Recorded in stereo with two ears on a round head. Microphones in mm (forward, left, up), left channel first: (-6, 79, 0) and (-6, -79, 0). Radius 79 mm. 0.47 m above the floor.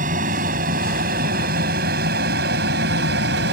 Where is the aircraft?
45° right (ahead or behind); by 3.5 s 65° right (ahead or behind).